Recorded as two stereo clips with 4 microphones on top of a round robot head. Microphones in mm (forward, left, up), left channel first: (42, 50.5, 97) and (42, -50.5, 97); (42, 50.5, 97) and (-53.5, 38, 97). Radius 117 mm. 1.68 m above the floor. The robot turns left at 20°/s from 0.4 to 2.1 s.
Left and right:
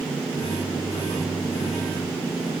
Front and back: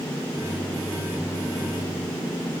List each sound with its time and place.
Only background noise.